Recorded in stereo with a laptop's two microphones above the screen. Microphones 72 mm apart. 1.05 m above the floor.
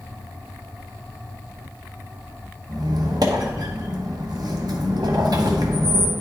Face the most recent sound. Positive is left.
turn(degrees=-65)  # may be behind; listen again after turning